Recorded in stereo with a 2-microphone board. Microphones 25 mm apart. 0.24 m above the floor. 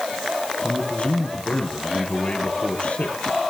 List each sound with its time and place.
0.6 s a man speaking: 60° left (ahead or behind), 5 m